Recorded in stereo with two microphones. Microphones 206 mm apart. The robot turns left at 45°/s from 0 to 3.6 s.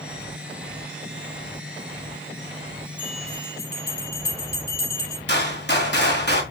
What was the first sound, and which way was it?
A bell, 25° left (ahead or behind).